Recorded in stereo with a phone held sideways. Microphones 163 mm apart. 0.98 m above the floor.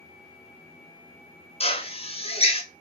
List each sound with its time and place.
1.6 s a drill: 40° left (ahead or behind), 0.7 m